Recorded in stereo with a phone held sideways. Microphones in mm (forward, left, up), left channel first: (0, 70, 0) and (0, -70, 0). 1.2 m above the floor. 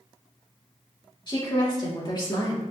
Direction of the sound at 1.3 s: 35° left (ahead or behind).